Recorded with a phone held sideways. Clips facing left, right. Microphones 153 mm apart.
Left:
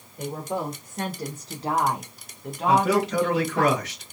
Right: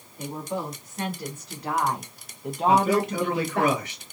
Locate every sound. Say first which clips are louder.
0.2 s a woman speaking: left 2 dB; 55° left (ahead or behind), 1.2 m; by 3.7 s 65° right (ahead or behind), 0.8 m
2.7 s a man speaking: even; 85° left, 1.6 m